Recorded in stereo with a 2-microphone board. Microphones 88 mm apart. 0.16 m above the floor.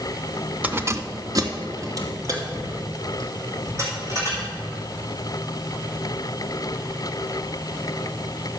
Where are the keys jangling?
15° right (ahead or behind), 0.8 m; by 4.5 s 35° right (ahead or behind), 6 m.